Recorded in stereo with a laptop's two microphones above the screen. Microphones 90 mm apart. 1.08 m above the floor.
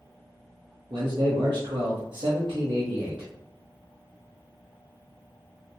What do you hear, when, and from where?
0.9 s a man speaking: 65° right (ahead or behind), 0.8 m